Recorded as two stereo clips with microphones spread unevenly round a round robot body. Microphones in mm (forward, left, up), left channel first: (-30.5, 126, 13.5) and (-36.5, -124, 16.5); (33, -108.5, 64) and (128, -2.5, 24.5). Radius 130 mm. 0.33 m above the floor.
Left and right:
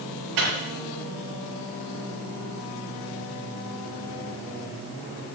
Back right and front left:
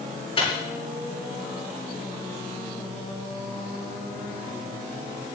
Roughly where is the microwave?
Right.